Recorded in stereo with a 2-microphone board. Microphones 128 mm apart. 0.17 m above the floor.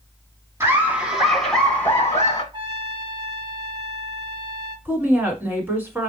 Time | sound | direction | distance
0.6 | laughter | 20° right (ahead or behind) | 1.2 m
2.5 | a trumpet | 35° right (ahead or behind) | 1.9 m
4.8 | a woman speaking | 15° right (ahead or behind) | 1.5 m